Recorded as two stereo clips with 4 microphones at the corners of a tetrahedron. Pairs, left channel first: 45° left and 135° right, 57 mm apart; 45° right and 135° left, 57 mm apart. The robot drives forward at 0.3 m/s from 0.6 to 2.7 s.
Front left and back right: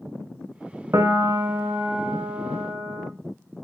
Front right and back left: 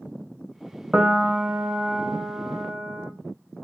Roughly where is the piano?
Behind.